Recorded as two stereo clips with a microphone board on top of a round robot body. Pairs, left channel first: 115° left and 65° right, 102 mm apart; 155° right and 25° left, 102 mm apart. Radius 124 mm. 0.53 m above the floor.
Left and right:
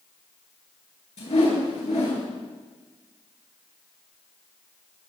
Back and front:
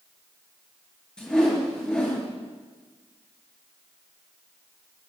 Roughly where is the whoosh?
Behind left.